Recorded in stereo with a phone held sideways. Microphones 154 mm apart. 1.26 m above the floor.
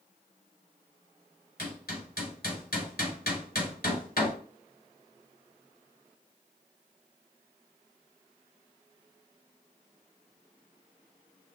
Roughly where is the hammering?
Left.